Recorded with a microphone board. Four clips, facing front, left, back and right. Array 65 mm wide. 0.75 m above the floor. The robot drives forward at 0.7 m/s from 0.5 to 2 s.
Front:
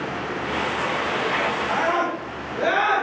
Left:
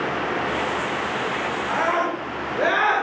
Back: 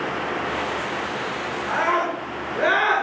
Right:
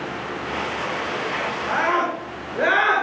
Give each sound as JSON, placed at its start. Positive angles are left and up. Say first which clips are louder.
{"t": 1.7, "sound": "a scream", "louder": "right 2 dB, back 4 dB", "azimuth_deg": -115, "distance_m": 8.5}